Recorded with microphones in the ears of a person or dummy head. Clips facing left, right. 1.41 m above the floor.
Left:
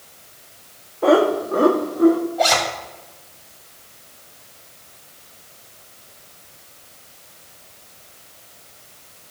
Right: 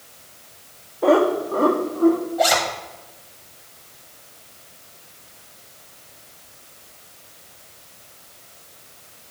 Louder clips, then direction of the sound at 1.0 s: Left 1 dB; 5° left (ahead or behind).